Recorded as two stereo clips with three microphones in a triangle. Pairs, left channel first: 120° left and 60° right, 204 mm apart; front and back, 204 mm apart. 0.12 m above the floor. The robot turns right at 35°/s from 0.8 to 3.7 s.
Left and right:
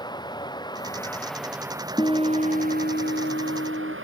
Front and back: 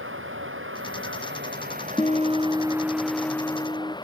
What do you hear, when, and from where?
0.0 s running water: 170° right; by 4.0 s 70° right
2.0 s a guitar: 55° left; by 4.0 s 115° left